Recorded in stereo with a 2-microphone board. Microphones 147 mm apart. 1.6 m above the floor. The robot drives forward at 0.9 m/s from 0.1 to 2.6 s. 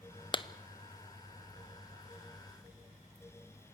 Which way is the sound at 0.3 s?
35° left (ahead or behind).